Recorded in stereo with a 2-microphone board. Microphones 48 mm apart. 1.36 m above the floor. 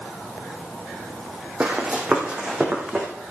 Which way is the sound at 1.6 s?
20° right (ahead or behind).